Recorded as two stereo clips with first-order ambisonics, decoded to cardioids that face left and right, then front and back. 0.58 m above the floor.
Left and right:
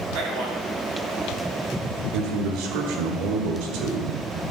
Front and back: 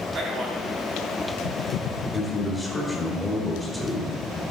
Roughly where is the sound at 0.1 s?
Behind right.